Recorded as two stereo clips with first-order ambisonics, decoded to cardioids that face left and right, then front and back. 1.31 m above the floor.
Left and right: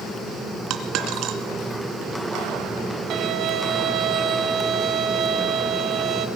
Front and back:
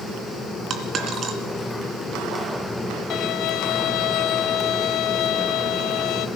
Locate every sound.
0.7 s a dropped coin: 125° right, 2.5 m
3.1 s a violin: 35° right, 1.7 m